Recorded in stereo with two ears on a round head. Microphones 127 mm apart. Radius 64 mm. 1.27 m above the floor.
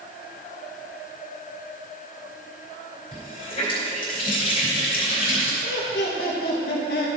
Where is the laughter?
75° left (ahead or behind), 1.7 m.